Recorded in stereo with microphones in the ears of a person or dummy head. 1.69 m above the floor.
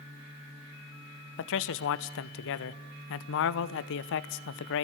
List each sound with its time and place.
1.4 s a man speaking: 70° left (ahead or behind), 1.0 m